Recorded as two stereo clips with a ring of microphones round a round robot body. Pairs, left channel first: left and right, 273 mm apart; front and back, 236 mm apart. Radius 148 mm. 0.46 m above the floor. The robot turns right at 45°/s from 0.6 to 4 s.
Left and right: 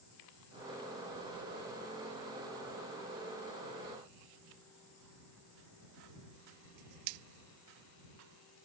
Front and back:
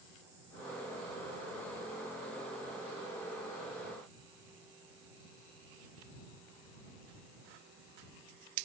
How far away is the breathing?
No breathing in this recording.